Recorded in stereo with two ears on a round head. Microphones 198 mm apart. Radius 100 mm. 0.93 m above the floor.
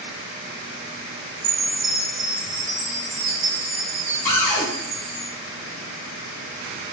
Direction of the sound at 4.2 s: 10° left (ahead or behind).